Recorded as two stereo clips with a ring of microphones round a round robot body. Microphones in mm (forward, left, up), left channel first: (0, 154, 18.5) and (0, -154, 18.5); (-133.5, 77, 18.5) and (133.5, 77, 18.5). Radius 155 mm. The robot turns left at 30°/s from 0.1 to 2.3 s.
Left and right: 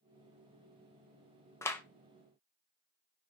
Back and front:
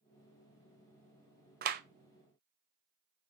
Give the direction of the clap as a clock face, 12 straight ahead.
11 o'clock.